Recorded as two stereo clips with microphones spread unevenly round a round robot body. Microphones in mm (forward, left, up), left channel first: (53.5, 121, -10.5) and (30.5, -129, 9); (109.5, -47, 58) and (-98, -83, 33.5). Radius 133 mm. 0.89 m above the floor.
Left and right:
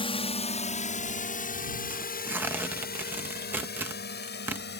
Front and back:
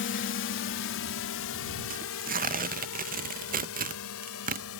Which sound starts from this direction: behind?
Tearing paper, at 1.9 s.